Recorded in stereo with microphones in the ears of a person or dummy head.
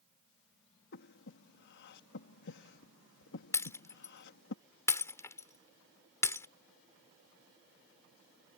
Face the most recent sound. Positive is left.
turn(degrees=10)  # may be behind; listen again after turning